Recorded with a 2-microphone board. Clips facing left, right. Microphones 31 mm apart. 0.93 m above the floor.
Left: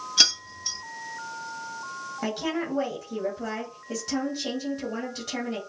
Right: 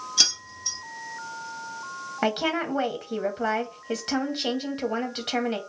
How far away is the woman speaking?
About 1.4 m.